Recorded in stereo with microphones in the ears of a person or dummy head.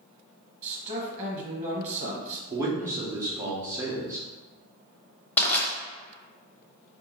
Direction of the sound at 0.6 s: 15° right (ahead or behind).